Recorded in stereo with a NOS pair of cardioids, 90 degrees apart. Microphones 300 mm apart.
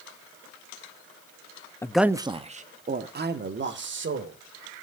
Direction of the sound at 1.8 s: 10° left.